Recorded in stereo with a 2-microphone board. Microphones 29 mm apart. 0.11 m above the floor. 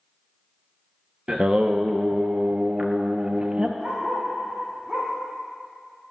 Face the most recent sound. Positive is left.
turn(degrees=-15)  # may be behind; listen again after turning